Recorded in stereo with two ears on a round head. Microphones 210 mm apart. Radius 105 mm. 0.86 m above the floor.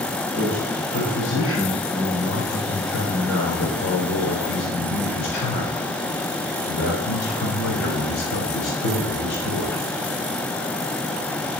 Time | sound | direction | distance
0.3 | a man speaking | 50° left (ahead or behind) | 4.5 m